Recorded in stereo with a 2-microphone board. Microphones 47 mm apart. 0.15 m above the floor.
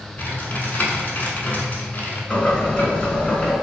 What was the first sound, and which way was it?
Typing on a keyboard, 35° left (ahead or behind).